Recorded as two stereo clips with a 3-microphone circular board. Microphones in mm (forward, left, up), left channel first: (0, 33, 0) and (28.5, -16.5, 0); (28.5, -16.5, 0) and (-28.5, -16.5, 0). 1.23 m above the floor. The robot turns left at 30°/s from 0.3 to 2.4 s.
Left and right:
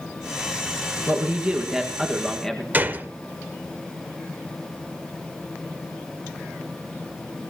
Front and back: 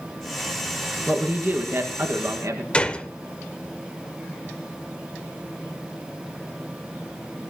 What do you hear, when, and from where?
1.1 s a man speaking: 120° right, 1.6 m; by 2.6 s 160° right, 1.6 m
2.7 s a gunshot: 50° right, 1.0 m